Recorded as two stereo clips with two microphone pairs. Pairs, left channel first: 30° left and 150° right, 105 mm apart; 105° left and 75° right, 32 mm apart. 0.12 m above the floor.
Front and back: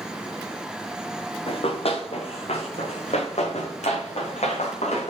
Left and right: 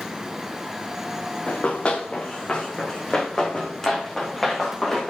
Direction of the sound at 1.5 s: 60° left.